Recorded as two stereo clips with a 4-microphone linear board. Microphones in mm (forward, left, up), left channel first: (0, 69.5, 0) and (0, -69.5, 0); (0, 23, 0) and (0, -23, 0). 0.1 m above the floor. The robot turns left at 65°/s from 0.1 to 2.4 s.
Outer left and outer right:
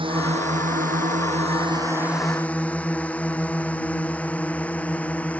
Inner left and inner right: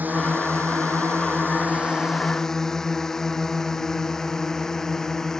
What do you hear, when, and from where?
0.0 s a drone: 40° right (ahead or behind); by 5.4 s 10° left (ahead or behind)